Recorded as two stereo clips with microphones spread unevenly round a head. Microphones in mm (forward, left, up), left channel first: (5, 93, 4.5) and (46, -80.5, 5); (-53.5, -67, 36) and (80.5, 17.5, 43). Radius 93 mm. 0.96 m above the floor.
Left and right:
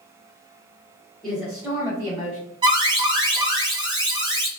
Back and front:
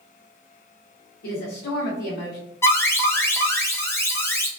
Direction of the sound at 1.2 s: 170° right.